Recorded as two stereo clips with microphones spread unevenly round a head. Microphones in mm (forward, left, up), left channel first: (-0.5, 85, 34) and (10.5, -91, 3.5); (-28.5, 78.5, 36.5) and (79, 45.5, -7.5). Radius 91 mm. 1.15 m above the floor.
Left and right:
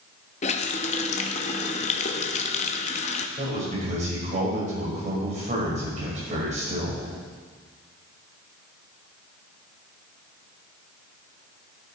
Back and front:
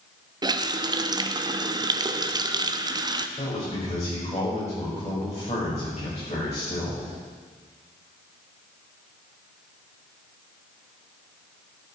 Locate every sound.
0.4 s a running tap: 45° left, 0.9 m
3.4 s a man speaking: 140° right, 6 m